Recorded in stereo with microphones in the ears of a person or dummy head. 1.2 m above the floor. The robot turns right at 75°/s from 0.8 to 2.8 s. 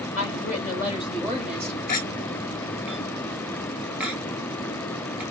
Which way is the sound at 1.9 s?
60° left (ahead or behind).